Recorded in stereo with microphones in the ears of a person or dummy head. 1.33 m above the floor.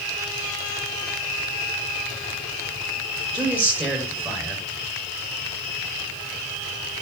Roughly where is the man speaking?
Centre.